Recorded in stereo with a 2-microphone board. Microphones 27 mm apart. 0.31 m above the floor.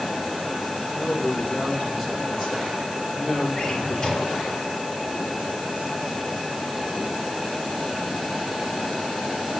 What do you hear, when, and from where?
0.9 s a man speaking: centre (ahead or behind), 3.5 m; by 3.5 s 20° left (ahead or behind), 5.5 m
3.6 s a drawer: 35° left (ahead or behind), 2.5 m